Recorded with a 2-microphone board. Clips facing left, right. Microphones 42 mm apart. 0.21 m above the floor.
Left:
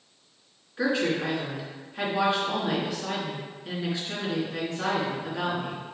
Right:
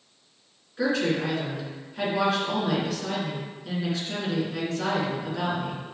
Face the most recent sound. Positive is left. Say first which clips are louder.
# right 1 dB
turn(degrees=10)  # may be behind; listen again after turning